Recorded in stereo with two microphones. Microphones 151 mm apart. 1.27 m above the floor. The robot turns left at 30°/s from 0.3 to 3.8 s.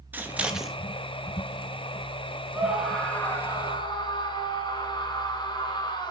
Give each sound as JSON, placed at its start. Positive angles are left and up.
{"t": 0.1, "sound": "scissors", "side_deg": -10, "distance_m": 1.8}
{"t": 2.5, "sound": "a scream", "azimuth_deg": -170, "distance_m": 4.5}